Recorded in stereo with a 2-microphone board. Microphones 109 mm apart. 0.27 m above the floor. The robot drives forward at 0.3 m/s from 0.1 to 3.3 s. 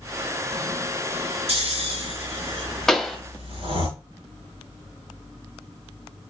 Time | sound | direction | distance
1.5 | snoring | 70° right (ahead or behind) | 2 m
2.9 | a pop | 5° left (ahead or behind) | 0.8 m